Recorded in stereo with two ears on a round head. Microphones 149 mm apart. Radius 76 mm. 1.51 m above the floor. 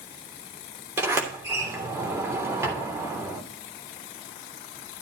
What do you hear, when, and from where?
1.0 s a sliding door: 15° right (ahead or behind), 3 m